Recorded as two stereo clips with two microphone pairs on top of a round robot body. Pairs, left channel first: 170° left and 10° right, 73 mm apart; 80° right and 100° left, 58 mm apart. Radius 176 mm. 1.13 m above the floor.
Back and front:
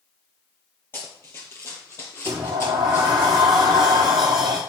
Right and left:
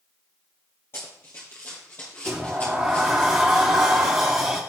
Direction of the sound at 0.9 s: 130° right.